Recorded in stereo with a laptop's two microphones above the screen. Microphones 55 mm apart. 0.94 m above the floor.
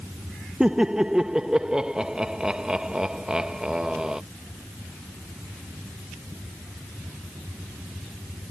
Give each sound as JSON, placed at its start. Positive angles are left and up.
{"t": 0.6, "sound": "laughter", "side_deg": -15}